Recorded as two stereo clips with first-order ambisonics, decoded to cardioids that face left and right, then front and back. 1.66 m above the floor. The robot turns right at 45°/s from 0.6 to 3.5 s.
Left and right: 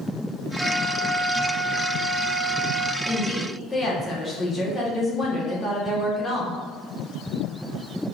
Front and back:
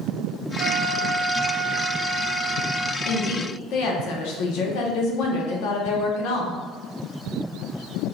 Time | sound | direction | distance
0.6 | a flute | 175° left | 0.5 m
3.0 | a woman speaking | 5° right | 1.1 m